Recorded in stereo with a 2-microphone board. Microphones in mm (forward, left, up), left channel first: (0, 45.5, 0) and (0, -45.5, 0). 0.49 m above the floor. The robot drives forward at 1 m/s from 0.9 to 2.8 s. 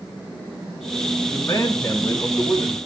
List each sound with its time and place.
1.3 s a man speaking: 25° left (ahead or behind), 4 m; by 2.8 s 40° left (ahead or behind), 3 m